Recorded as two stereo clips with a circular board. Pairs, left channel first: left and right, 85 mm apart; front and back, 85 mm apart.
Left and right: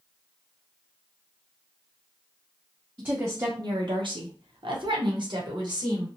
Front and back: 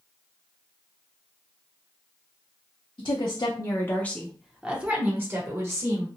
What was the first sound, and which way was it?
A woman speaking, 20° right.